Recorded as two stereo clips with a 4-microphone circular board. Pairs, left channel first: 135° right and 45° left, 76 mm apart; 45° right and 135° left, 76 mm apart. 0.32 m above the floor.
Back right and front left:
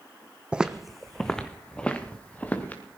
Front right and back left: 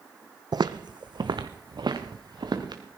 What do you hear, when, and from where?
0.5 s footsteps: 120° left, 0.8 m; by 2.8 s 155° left, 2.5 m